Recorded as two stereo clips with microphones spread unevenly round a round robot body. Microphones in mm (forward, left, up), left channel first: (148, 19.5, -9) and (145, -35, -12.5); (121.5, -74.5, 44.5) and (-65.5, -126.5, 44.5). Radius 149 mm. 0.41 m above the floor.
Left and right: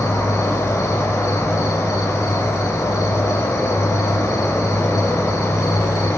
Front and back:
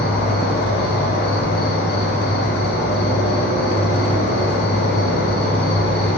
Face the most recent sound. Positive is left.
turn(degrees=55)